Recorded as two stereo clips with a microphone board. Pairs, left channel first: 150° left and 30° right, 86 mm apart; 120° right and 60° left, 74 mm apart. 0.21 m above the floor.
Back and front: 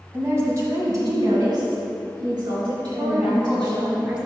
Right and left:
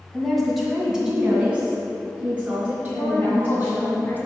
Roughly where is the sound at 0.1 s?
Ahead right.